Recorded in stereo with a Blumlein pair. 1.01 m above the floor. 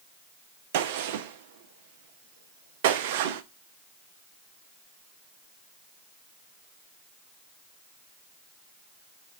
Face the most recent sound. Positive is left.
turn(degrees=-50)